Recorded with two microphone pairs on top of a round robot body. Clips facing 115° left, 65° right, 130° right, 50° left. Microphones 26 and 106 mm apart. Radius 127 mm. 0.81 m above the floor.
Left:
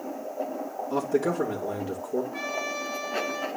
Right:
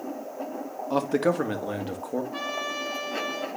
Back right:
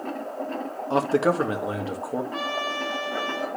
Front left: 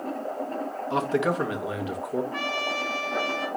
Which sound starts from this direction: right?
A man speaking, at 0.9 s.